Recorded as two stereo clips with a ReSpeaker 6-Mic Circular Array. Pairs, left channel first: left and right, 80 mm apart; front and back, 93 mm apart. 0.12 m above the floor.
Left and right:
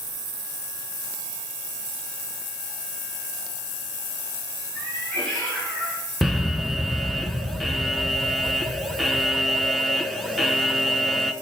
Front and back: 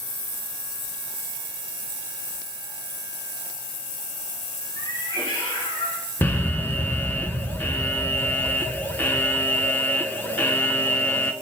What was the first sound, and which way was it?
A cat meowing, 15° left.